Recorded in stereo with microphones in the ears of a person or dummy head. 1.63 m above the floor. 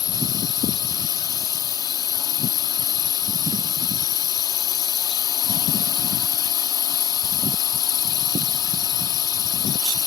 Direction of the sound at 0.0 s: 15° left (ahead or behind).